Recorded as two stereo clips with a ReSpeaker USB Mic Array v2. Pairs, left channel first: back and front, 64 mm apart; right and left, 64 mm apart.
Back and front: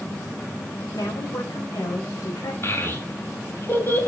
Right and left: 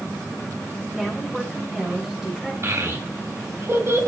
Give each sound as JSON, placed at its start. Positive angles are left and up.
{"t": 0.9, "sound": "a woman speaking", "azimuth_deg": 170, "distance_m": 4.0}
{"t": 2.6, "sound": "a child speaking", "azimuth_deg": 130, "distance_m": 2.5}